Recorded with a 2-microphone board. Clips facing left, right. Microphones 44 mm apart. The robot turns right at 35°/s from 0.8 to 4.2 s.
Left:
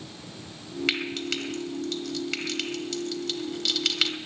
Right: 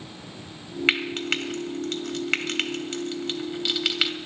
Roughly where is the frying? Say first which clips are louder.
Right 5 dB; right.